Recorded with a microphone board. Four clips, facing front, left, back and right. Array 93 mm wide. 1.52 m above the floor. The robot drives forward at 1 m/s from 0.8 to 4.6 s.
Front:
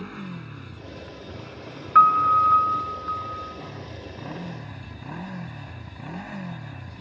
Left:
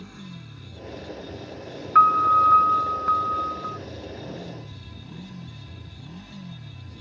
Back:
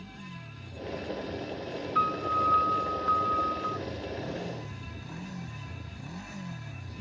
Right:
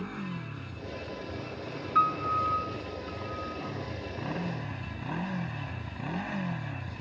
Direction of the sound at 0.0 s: 35° right.